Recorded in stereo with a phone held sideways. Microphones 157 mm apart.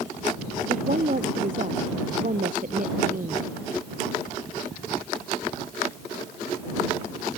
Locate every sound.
0.7 s a woman speaking: 60° right (ahead or behind)